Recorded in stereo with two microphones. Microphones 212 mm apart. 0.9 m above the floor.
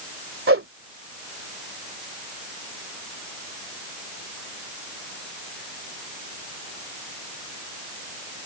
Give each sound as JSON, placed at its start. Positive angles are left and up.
{"t": 0.5, "sound": "a whoosh", "side_deg": -75}